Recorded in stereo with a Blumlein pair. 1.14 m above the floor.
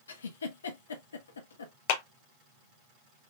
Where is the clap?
50° left, 0.9 m.